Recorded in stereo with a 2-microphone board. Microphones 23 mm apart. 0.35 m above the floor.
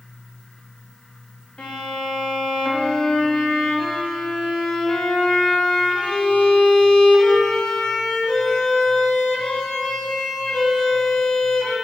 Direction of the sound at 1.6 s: 60° left (ahead or behind).